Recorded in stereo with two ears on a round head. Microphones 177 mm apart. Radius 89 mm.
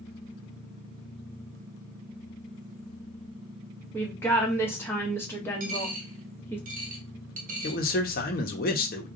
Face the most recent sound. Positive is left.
turn(degrees=50)  # may be behind; listen again after turning